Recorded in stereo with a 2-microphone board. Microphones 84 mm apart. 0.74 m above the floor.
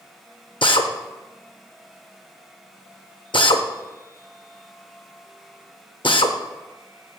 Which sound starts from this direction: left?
A drill, at 0.6 s.